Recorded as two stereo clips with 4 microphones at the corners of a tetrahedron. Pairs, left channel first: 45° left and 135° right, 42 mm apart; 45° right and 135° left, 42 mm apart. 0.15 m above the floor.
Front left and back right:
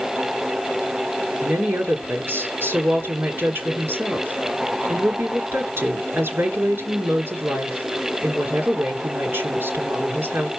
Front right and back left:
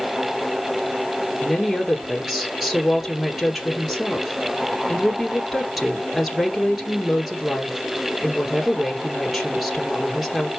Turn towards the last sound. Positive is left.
turn(degrees=-145)